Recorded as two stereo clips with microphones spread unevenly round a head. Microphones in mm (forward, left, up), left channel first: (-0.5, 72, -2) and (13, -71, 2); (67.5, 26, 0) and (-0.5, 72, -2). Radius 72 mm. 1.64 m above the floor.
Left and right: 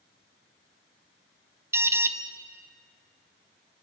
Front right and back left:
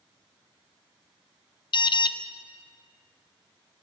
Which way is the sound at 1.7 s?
10° right.